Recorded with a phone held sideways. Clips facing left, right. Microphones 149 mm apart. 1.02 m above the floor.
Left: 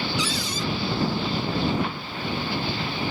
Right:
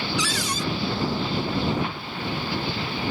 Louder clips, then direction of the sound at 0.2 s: Even; 80° right.